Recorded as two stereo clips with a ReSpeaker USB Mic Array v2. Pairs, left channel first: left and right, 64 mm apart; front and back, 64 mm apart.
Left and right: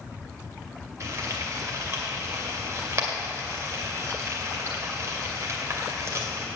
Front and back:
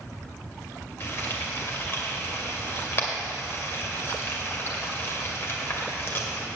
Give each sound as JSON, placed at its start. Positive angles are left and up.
{"t": 1.0, "sound": "frying", "azimuth_deg": -50, "distance_m": 2.0}